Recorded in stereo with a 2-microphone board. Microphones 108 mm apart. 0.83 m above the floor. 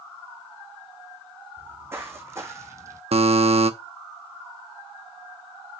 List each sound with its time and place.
1.6 s footsteps: 20° right (ahead or behind), 2.5 m; by 3.0 s 30° right (ahead or behind), 1.3 m
3.1 s a buzzer: 70° right (ahead or behind), 0.7 m